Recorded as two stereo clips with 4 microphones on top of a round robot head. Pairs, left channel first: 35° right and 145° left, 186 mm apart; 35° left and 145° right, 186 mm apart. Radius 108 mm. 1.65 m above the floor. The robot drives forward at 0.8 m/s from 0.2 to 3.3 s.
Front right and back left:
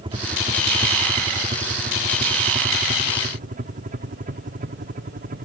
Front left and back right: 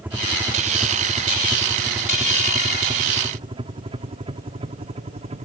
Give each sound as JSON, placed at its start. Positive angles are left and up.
{"t": 0.0, "sound": "a helicopter", "azimuth_deg": 145}